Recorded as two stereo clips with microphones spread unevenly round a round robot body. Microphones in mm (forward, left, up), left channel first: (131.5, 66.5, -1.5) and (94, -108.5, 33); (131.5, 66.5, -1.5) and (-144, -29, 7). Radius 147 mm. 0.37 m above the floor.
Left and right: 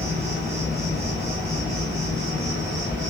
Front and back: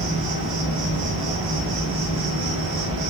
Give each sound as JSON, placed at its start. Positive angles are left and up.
{"t": 0.0, "sound": "an insect", "azimuth_deg": -170, "distance_m": 1.3}